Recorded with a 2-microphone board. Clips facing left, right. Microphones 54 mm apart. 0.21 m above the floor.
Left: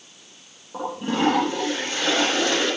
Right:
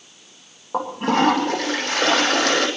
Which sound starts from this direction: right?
A toilet flushing, at 0.7 s.